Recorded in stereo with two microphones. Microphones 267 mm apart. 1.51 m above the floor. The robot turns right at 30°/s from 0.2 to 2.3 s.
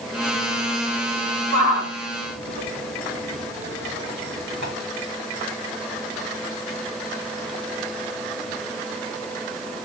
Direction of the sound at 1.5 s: 65° right (ahead or behind).